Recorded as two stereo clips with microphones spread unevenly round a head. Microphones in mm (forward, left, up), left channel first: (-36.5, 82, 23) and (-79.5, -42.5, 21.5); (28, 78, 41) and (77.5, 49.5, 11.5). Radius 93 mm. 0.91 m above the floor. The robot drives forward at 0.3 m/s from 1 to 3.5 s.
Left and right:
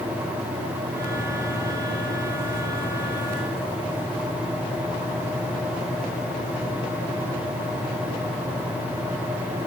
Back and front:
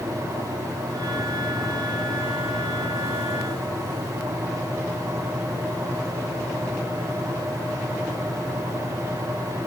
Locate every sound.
Only background noise.